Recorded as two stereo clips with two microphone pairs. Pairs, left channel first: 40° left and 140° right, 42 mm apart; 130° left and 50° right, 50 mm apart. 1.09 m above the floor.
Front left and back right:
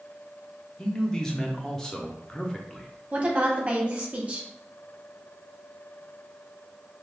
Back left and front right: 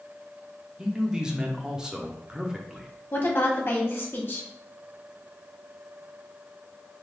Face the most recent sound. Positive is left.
turn(degrees=170)